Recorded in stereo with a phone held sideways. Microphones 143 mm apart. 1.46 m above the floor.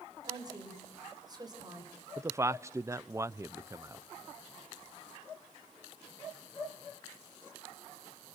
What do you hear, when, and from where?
0.3 s a woman speaking: 30° right (ahead or behind), 6.5 m
2.2 s a man speaking: 20° right (ahead or behind), 0.7 m